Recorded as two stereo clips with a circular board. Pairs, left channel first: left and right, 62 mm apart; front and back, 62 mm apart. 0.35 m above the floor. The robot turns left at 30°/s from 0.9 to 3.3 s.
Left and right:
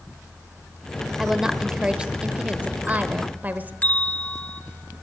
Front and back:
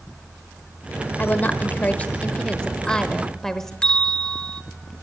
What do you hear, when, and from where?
1.2 s a woman speaking: 15° right, 1.0 m; by 3.7 s 75° right, 1.0 m
3.8 s a bell: 55° left, 0.7 m